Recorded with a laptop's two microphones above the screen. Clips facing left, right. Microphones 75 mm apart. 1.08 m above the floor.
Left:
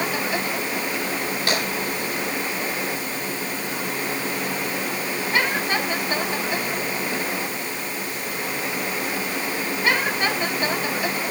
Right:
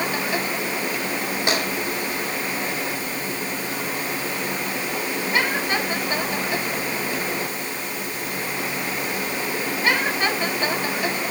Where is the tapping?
20° right (ahead or behind), 5 m.